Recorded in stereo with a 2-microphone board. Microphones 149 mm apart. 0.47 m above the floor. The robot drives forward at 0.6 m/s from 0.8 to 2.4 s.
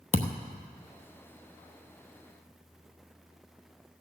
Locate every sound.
0.1 s a thud: 55° left (ahead or behind), 0.8 m